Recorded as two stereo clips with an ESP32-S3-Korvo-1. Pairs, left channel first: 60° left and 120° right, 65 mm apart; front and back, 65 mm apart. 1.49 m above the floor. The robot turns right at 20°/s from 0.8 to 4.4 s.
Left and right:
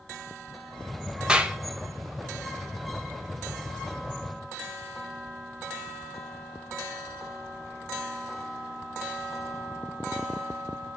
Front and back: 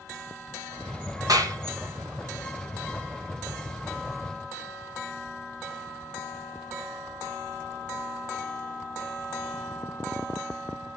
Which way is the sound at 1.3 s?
165° left.